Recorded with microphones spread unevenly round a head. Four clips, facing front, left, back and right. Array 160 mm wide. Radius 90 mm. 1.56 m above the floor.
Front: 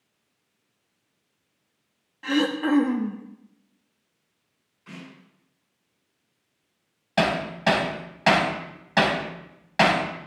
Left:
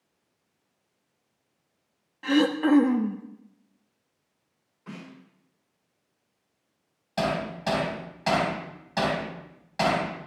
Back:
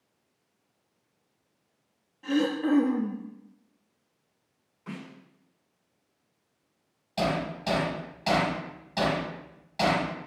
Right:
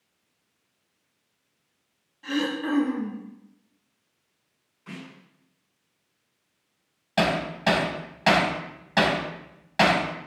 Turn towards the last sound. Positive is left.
turn(degrees=-25)